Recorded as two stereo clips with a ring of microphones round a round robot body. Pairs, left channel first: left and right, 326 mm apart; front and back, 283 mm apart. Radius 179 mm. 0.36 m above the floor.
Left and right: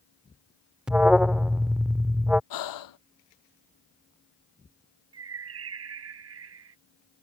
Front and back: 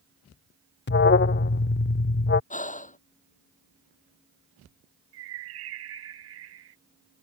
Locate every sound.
0.9 s an alarm: 5° right
2.5 s breathing: 65° left
5.1 s a bird: 135° right